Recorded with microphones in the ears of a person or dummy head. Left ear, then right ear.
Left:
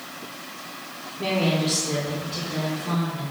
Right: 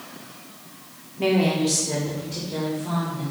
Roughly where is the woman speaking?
Right.